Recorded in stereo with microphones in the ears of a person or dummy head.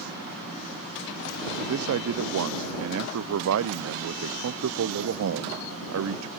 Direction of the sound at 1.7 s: 80° right.